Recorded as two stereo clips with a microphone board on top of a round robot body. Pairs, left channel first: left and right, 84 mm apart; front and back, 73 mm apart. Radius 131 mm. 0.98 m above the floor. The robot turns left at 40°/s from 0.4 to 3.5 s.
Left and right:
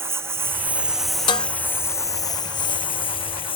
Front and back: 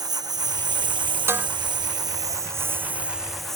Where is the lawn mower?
150° right; by 3.5 s 85° left.